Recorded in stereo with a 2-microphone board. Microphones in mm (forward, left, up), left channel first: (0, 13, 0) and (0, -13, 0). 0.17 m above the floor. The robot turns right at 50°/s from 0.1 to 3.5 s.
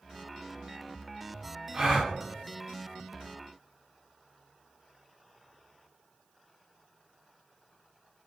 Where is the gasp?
30° right (ahead or behind), 1.4 m; by 2.1 s 20° right (ahead or behind), 1.4 m.